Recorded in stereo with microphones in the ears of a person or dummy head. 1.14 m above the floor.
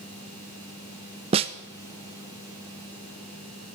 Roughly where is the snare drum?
Right.